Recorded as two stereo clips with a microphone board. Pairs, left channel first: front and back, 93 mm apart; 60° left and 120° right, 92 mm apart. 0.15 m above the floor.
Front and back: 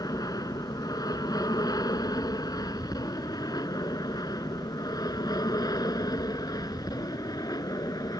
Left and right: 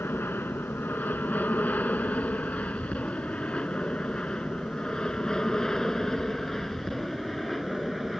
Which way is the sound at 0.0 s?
5° left.